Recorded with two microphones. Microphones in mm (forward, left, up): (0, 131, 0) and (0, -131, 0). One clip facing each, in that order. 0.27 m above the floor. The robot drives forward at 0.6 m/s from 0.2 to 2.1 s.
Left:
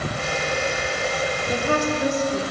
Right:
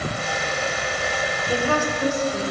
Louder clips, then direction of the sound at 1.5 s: Right 1 dB; 25° left (ahead or behind).